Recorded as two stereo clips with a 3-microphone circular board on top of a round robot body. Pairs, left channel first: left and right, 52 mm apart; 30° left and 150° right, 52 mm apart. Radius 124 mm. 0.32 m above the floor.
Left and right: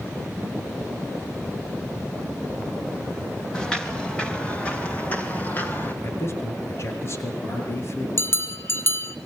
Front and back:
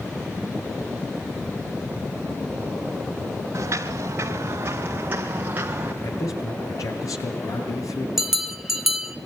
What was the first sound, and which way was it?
Footsteps, 170° left.